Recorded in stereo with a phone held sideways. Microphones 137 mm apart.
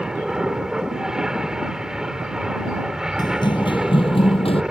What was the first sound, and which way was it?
An aircraft, 5° right (ahead or behind).